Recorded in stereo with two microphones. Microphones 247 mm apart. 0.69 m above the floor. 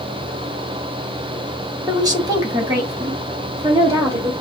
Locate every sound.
1.9 s a woman speaking: 15° right (ahead or behind), 1.0 m; by 4.3 s 10° right (ahead or behind), 3 m